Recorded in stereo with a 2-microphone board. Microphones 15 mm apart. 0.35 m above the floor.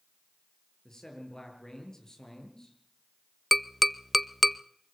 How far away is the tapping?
About 0.5 m.